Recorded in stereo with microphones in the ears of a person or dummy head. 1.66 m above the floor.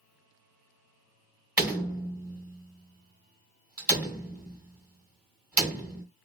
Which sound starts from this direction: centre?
A door slam, at 1.6 s.